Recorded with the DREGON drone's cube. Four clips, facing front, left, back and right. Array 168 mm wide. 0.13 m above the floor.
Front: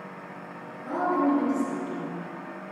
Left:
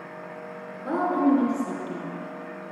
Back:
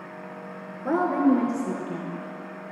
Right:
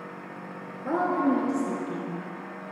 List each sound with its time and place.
0.8 s a woman speaking: 170° right, 2.5 m; by 2.2 s straight behind, 4 m